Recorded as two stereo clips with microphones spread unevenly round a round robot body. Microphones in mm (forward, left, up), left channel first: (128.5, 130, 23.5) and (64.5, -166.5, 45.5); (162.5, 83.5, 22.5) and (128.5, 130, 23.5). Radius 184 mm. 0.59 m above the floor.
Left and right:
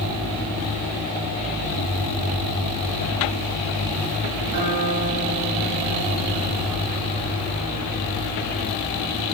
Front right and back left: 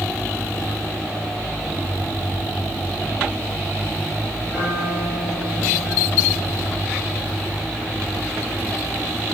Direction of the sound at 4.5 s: 145° right.